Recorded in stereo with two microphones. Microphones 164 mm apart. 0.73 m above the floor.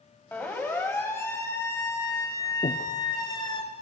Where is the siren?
10° left (ahead or behind), 5 m; by 3.6 s 30° left (ahead or behind), 3.5 m.